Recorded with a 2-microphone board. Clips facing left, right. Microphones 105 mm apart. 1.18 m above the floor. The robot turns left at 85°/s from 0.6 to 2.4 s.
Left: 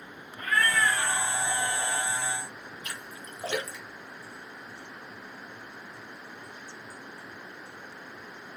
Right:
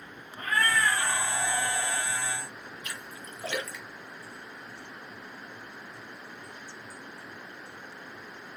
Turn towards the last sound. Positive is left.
turn(degrees=30)  # may be behind; listen again after turning